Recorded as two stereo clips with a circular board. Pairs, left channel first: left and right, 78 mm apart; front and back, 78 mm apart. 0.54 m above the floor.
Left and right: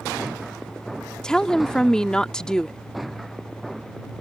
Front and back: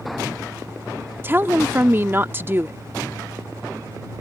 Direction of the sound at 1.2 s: 160° left.